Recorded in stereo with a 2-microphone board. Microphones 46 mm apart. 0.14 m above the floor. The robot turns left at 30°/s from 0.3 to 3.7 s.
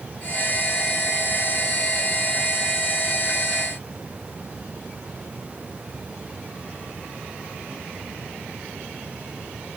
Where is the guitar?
No guitar in this recording.